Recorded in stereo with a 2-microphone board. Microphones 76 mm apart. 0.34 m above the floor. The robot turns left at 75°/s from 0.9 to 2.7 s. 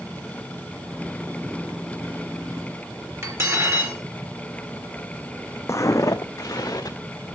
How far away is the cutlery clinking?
About 3.5 m.